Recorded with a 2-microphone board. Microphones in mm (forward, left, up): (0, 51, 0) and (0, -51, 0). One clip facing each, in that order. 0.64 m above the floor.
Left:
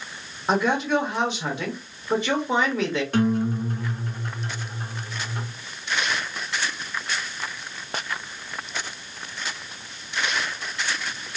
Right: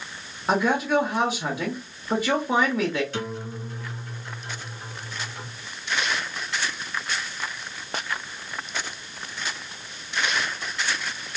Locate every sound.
0.5 s a man speaking: 5° right (ahead or behind), 0.9 m
3.1 s a guitar: 50° left (ahead or behind), 0.9 m